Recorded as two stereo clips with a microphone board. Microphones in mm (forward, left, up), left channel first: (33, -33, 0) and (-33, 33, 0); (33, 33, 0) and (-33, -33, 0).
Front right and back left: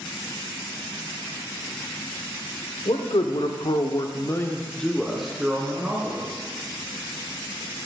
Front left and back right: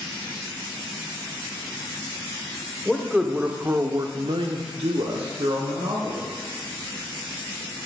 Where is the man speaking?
40° right, 1.1 m; by 6.3 s 155° right, 1.7 m.